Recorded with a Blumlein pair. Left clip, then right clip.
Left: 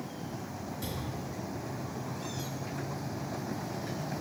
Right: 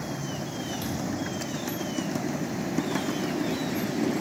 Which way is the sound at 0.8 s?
45° right.